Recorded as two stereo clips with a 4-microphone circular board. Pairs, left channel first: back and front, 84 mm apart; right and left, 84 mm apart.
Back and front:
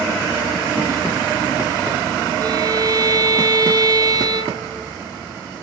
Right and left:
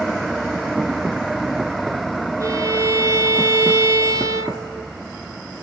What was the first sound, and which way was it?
A violin, 40° left.